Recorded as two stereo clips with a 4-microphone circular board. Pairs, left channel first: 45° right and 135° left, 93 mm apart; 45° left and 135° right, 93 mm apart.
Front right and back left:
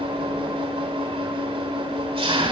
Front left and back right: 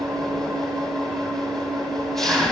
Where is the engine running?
130° left, 6.5 m.